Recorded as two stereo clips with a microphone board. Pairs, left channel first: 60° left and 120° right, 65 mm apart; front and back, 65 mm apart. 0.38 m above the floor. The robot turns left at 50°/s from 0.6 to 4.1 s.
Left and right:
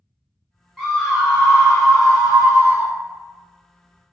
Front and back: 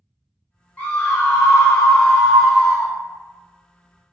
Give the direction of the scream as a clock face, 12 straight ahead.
1 o'clock.